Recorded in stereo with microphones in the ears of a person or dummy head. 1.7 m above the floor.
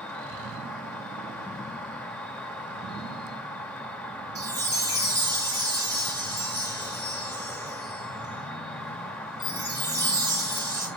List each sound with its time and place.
0.0 s an insect: 5° left (ahead or behind), 0.8 m
4.3 s a chime: 25° right (ahead or behind), 2.5 m